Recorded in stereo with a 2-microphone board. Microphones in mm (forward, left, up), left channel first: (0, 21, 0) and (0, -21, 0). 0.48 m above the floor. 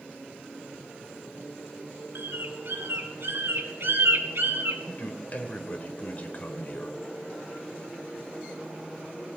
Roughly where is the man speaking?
Left.